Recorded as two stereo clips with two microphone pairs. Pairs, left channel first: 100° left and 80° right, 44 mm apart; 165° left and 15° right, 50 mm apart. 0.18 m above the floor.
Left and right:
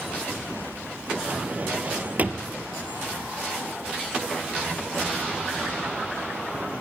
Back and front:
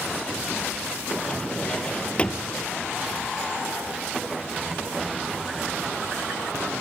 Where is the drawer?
130° right, 1.6 m.